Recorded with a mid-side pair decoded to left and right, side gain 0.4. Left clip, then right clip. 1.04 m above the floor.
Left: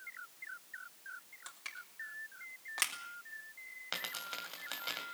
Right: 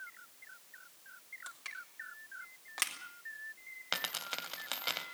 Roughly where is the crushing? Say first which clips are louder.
Right 1 dB; ahead.